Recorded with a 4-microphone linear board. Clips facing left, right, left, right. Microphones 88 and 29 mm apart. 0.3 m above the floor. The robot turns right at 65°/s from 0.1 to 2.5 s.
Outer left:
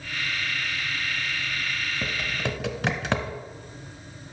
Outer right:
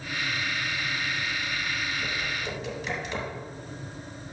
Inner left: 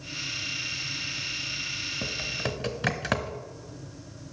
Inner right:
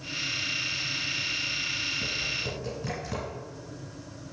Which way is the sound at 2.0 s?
60° left (ahead or behind).